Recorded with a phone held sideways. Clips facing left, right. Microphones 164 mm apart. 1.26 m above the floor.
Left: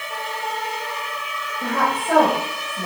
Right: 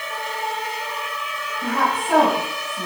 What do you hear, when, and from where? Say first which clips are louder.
1.6 s a woman speaking: even; 75° left (ahead or behind), 6.5 m